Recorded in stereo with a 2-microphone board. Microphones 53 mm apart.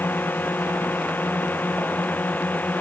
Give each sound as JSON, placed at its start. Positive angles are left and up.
{"t": 0.0, "sound": "a drone", "side_deg": 35}